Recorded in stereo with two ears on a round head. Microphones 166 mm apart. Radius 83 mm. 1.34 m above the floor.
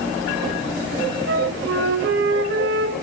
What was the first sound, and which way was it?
A flute, 75° right (ahead or behind).